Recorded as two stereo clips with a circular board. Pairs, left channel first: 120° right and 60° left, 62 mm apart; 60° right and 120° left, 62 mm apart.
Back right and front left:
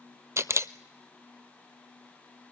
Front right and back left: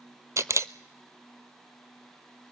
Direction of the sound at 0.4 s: 95° left.